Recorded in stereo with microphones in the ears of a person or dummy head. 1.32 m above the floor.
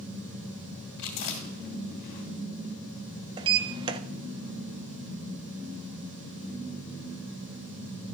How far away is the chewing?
About 2.5 m.